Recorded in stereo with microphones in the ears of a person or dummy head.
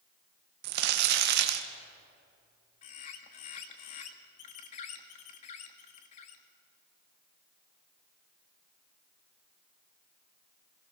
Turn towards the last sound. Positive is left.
turn(degrees=35)  # may be behind; listen again after turning